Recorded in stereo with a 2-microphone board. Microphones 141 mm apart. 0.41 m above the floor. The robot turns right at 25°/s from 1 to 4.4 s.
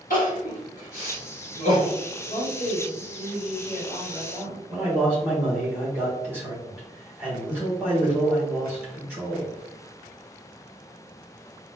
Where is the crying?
75° left (ahead or behind), 1.7 m; by 2.0 s 50° left (ahead or behind), 1.7 m.